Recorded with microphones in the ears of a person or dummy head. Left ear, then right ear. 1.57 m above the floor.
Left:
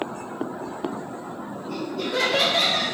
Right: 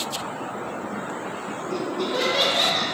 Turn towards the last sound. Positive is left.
turn(degrees=55)  # may be behind; listen again after turning